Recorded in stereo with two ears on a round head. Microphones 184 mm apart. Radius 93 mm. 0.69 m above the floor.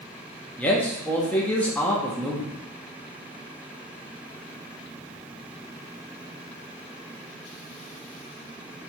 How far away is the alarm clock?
No alarm clock in this recording.